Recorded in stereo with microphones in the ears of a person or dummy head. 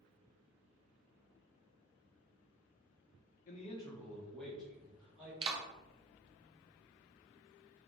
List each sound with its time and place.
3.5 s a man speaking: 45° left (ahead or behind), 0.6 m; by 5.3 s 10° right (ahead or behind), 2.5 m
5.4 s a clap: 35° right (ahead or behind), 0.8 m